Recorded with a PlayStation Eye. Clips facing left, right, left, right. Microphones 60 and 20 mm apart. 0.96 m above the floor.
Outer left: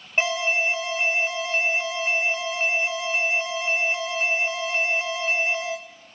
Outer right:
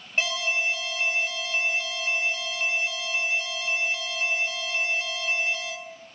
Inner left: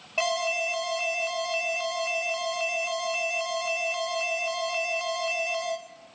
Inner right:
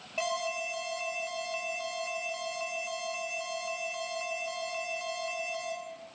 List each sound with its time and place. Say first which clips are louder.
0.2 s an alarm: outer left 4 dB, inner left 6 dB; 30° left (ahead or behind), 4 m